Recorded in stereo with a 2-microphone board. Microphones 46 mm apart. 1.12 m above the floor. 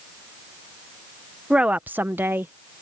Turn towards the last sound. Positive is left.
turn(degrees=-50)  # may be behind; listen again after turning